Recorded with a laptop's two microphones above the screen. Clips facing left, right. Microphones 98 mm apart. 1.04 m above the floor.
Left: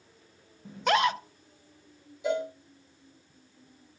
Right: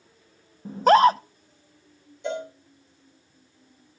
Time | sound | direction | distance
0.7 | a scream | 40° right (ahead or behind) | 0.6 m
2.2 | a cowbell | 5° left (ahead or behind) | 3 m